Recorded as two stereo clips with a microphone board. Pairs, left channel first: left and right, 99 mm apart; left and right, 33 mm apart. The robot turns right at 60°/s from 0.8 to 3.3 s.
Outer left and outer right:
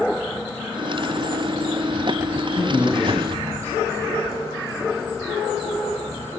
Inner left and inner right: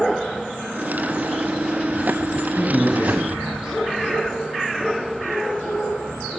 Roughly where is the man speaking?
Right.